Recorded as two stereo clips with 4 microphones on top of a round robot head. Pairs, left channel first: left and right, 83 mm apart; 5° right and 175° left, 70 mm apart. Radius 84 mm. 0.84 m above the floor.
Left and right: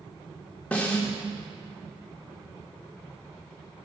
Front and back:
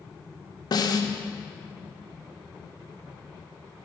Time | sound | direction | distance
0.7 | a snare drum | 15° left | 1.2 m